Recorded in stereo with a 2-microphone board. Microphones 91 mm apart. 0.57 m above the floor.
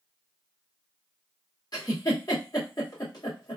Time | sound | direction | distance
1.7 | a giggle | 45° left (ahead or behind) | 1.8 m